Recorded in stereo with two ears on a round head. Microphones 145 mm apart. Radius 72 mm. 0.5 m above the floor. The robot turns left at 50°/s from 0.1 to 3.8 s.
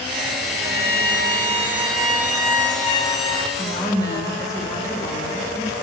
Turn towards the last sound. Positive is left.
turn(degrees=20)  # may be behind; listen again after turning